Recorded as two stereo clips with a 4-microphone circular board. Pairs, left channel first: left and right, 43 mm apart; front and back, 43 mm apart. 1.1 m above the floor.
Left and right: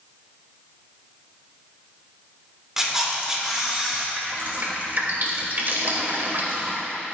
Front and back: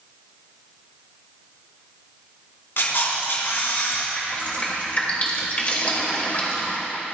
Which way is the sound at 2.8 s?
15° right.